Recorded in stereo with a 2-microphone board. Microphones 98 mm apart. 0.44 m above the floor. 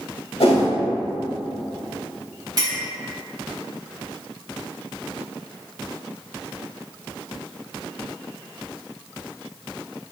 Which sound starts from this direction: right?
A clink, at 2.6 s.